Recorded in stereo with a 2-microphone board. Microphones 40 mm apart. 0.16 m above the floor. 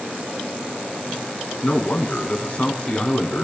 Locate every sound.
1.6 s a man speaking: 35° left (ahead or behind), 1.5 m; by 3.5 s 30° left (ahead or behind), 1.6 m